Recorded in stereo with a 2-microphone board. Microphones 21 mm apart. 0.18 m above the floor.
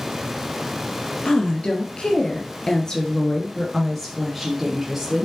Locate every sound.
1.2 s a woman speaking: 65° left (ahead or behind), 3 m; by 5.2 s 15° right (ahead or behind), 3 m